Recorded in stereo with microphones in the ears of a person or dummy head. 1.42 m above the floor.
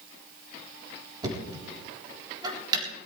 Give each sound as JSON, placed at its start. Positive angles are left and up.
{"t": 1.2, "sound": "knocking", "side_deg": -25, "distance_m": 4.0}